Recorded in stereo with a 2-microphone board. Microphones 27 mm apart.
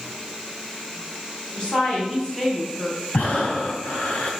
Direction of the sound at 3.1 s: 70° left (ahead or behind).